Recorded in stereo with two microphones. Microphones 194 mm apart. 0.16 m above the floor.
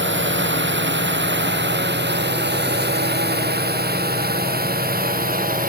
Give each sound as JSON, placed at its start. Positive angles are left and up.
{"t": 0.0, "sound": "a drone", "side_deg": -75}